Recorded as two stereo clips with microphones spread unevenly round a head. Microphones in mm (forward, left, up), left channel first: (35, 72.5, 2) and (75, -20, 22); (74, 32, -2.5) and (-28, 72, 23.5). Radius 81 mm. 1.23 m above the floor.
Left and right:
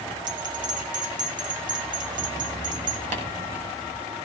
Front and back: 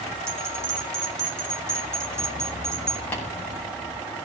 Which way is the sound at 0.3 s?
130° right.